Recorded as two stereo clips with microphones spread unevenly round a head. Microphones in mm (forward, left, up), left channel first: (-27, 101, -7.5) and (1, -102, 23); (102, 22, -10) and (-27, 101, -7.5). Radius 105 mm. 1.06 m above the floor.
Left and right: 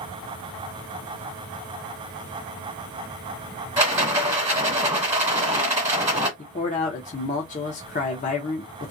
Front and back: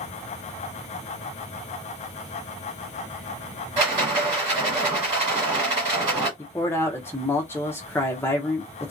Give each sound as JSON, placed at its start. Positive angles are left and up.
{"t": 3.8, "sound": "a rattle", "azimuth_deg": -150, "distance_m": 1.4}
{"t": 6.4, "sound": "a man speaking", "azimuth_deg": 45, "distance_m": 0.6}